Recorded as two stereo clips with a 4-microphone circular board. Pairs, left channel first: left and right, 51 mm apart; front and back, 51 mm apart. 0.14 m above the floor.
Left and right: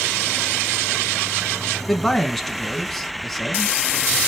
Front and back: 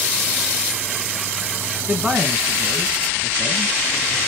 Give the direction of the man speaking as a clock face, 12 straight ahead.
7 o'clock.